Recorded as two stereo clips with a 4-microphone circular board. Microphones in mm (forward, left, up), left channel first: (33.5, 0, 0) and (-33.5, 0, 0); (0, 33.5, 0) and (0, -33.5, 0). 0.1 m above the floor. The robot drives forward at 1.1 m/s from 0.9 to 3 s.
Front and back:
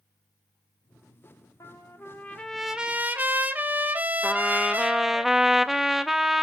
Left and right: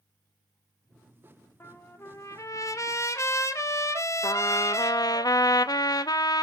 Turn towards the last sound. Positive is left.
turn(degrees=95)